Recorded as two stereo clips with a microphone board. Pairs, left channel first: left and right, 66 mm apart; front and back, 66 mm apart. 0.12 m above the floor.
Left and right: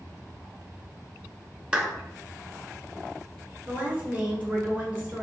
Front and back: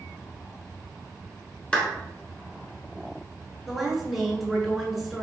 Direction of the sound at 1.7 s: 45° right.